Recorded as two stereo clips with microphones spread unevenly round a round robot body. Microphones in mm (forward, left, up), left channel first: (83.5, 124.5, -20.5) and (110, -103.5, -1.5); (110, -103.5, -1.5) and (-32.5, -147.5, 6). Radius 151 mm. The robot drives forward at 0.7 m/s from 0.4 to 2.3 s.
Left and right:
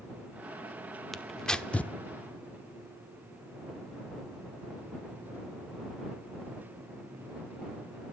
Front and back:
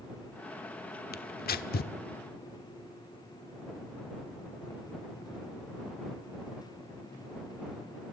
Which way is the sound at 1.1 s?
10° left.